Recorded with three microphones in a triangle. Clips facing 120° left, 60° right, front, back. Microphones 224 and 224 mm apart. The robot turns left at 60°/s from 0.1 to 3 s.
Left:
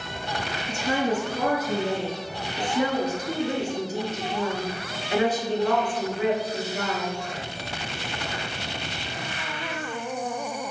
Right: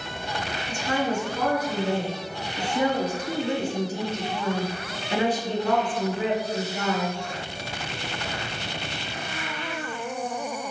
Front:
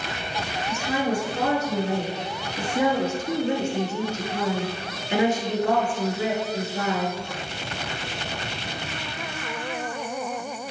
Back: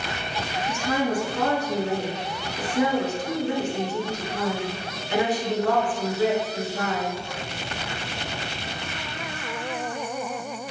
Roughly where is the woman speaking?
Left.